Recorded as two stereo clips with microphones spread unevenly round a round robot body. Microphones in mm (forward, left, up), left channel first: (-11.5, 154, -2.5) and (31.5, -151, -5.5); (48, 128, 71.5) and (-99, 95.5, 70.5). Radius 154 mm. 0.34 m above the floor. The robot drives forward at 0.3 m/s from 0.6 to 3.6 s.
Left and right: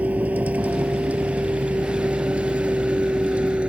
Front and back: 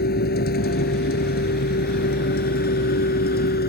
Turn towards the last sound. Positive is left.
turn(degrees=5)